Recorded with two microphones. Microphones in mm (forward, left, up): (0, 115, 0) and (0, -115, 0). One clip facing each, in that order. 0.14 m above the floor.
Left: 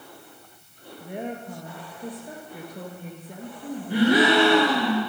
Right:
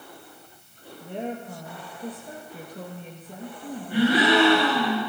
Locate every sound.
1.0 s a woman speaking: 10° left (ahead or behind), 2.5 m
3.9 s a gasp: 85° left, 9 m